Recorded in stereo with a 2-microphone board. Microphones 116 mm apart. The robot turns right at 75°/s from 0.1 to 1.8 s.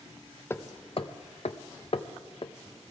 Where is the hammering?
20° left (ahead or behind), 0.6 m; by 2.5 s 55° left (ahead or behind), 0.6 m.